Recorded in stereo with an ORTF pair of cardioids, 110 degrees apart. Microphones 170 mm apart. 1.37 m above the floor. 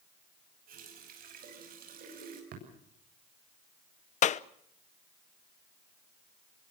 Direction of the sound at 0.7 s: 60° right.